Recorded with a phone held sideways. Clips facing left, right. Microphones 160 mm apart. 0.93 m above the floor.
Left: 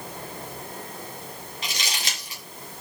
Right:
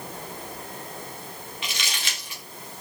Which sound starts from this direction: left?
Crumpling, at 1.6 s.